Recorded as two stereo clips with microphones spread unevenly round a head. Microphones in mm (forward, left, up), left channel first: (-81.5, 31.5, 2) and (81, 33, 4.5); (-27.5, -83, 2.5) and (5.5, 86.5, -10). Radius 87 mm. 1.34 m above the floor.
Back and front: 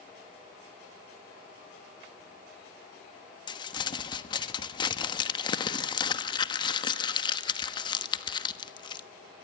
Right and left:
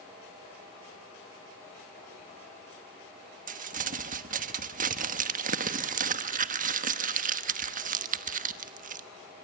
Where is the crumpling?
120° left, 1.1 m.